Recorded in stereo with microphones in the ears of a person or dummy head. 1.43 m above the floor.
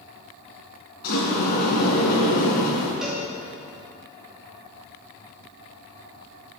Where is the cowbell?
10° left (ahead or behind), 2 m.